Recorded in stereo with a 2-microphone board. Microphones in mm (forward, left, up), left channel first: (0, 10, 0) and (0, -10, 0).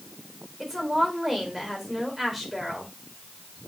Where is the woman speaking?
10° right (ahead or behind), 4 m.